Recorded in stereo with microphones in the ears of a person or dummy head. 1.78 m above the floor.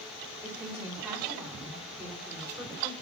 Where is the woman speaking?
5° right (ahead or behind), 4.5 m.